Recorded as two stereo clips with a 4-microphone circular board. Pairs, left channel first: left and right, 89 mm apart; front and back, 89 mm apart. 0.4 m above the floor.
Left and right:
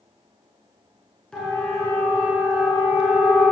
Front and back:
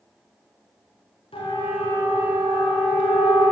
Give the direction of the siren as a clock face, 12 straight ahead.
12 o'clock.